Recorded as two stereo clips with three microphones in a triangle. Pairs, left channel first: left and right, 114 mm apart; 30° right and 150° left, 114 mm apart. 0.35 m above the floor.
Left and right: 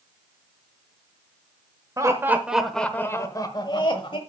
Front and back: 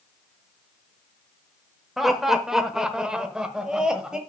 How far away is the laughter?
About 1.0 m.